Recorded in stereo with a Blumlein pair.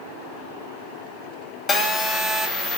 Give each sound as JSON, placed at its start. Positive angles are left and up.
{"t": 1.7, "sound": "a phone buzzing", "azimuth_deg": 20, "distance_m": 0.8}